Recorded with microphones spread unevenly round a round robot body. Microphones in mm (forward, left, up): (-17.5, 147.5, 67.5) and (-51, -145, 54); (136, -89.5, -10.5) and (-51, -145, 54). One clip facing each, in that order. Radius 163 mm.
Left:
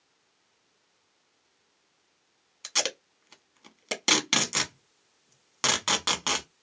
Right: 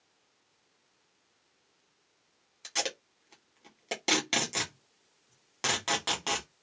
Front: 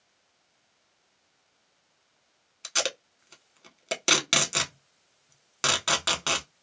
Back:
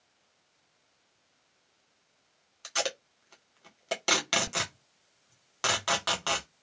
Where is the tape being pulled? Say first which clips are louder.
Left 2 dB, front 1 dB; 25° left, 0.9 m.